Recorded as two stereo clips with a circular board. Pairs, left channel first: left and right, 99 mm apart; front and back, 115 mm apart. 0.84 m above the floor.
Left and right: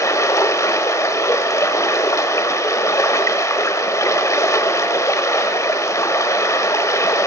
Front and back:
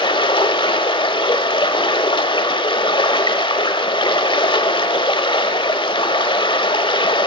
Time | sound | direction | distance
0.0 | running water | 35° left | 1.0 m